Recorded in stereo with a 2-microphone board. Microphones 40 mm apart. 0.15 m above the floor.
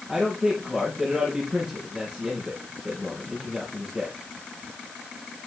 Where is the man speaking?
20° right (ahead or behind), 4 m.